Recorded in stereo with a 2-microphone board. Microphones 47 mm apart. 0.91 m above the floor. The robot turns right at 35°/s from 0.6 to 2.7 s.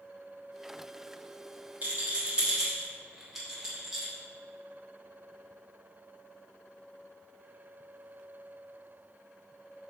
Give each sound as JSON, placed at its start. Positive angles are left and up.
{"t": 1.8, "sound": "a rattle", "side_deg": -40, "distance_m": 1.3}